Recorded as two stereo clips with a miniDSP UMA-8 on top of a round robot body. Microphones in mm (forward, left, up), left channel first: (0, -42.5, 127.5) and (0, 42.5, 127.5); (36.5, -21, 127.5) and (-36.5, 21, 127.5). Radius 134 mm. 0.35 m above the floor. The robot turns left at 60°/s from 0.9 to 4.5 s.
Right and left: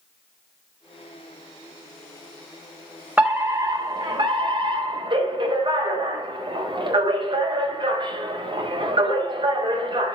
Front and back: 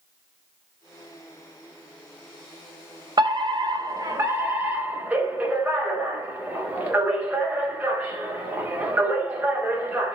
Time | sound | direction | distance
3.2 | a fire alarm | 160° left | 4.5 m